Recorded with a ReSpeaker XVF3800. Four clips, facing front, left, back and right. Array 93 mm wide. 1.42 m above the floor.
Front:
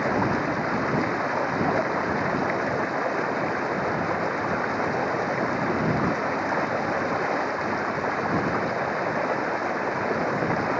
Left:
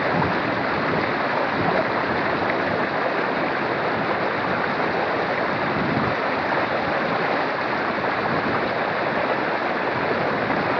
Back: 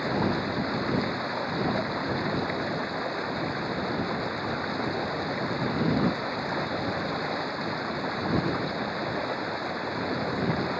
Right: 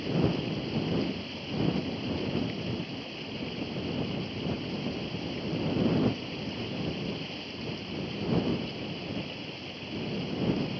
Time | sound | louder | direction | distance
0.0 | running water | left 8 dB, front 4 dB | 70° left | ?